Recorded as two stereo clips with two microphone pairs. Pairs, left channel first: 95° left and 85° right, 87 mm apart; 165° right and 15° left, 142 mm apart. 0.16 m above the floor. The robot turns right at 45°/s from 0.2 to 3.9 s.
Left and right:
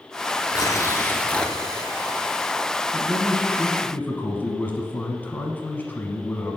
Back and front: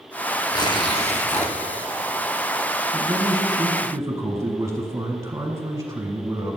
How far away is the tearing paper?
About 0.8 m.